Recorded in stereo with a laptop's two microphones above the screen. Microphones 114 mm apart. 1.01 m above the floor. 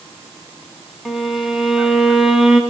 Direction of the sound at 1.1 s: 5° right (ahead or behind).